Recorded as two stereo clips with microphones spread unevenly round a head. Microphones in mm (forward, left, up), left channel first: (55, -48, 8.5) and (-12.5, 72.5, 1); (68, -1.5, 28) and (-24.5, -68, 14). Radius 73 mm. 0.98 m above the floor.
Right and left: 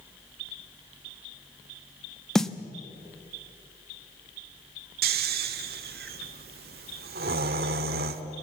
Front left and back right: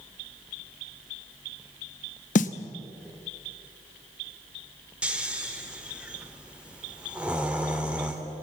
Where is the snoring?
130° left, 1.0 m.